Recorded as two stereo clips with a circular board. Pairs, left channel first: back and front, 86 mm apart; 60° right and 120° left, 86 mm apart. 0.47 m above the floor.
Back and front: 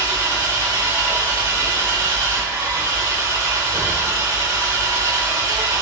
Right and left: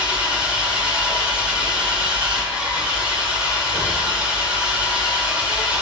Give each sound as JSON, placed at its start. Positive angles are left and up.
{"t": 0.0, "sound": "an engine running", "azimuth_deg": 45, "distance_m": 1.5}